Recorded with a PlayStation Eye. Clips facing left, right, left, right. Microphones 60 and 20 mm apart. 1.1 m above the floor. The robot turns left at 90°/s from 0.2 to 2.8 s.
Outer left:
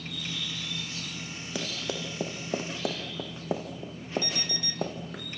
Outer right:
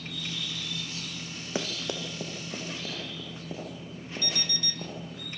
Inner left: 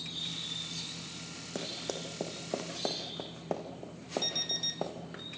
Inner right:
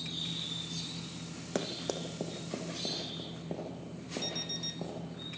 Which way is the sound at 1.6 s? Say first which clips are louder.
Outer right 1 dB, inner right 2 dB; 30° right (ahead or behind).